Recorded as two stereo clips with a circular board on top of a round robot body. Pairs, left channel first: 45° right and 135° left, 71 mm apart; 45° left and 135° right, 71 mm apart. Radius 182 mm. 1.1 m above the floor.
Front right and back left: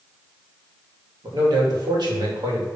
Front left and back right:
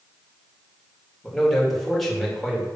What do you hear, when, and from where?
1.2 s a man speaking: 135° left, 2.5 m